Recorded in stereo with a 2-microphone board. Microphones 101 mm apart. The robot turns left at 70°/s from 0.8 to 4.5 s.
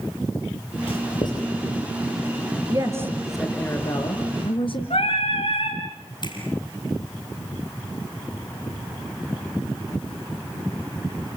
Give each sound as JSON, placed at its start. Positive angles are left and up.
{"t": 0.9, "sound": "writing", "side_deg": 65, "distance_m": 4.0}
{"t": 2.7, "sound": "a woman speaking", "azimuth_deg": -135, "distance_m": 3.0}
{"t": 4.9, "sound": "singing", "side_deg": 75, "distance_m": 4.5}
{"t": 6.2, "sound": "a finger snap", "side_deg": 45, "distance_m": 4.0}